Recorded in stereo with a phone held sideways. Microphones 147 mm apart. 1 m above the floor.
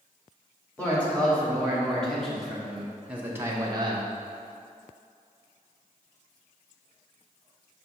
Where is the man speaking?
10° left (ahead or behind), 2 m; by 4.2 s 40° right (ahead or behind), 0.6 m.